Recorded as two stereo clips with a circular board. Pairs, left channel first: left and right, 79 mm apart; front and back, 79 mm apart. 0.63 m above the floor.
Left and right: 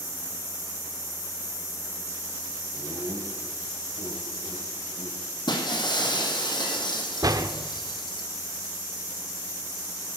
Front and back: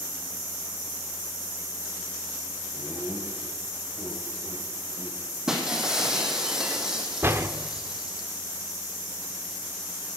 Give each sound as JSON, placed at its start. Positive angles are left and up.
{"t": 2.7, "sound": "laughter", "azimuth_deg": -110, "distance_m": 3.0}
{"t": 5.5, "sound": "breaking glass", "azimuth_deg": 95, "distance_m": 2.0}
{"t": 7.2, "sound": "a door slam", "azimuth_deg": -120, "distance_m": 0.9}